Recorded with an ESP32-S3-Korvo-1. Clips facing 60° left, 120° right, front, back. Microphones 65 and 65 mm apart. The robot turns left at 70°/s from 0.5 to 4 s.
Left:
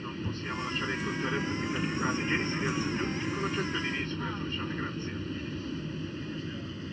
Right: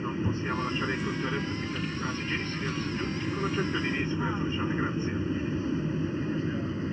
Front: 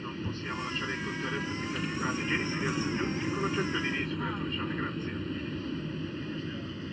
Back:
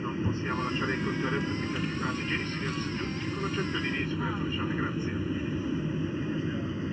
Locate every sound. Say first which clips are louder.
0.0 s an aircraft: right 6 dB, back 5 dB; 140° right; by 6.9 s 135° right